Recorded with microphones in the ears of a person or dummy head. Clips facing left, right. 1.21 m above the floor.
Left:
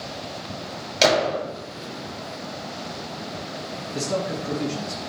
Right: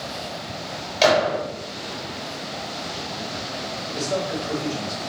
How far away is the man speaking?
About 1.5 m.